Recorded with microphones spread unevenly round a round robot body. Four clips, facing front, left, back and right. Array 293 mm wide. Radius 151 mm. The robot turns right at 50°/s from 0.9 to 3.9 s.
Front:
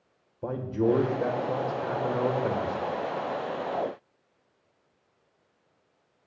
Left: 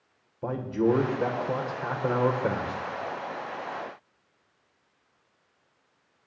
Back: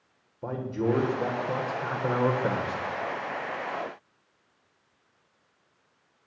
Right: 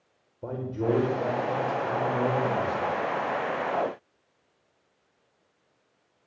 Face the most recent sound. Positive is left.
turn(degrees=170)